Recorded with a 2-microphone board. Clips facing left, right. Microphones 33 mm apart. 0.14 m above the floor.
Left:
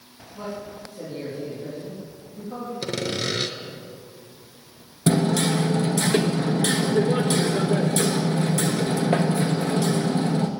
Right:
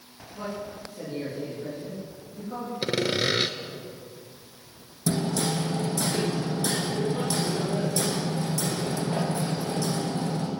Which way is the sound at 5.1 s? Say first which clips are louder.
Left 6 dB; 55° left (ahead or behind).